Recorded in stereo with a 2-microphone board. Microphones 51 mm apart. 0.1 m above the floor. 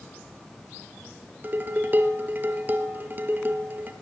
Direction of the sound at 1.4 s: 40° right (ahead or behind).